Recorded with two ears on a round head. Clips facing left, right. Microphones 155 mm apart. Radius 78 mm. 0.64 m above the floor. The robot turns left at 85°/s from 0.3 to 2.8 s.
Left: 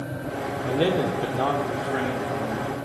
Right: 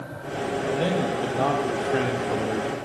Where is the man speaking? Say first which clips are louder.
Left 3 dB; 65° left, 1.6 m; by 2.8 s 110° right, 1.6 m.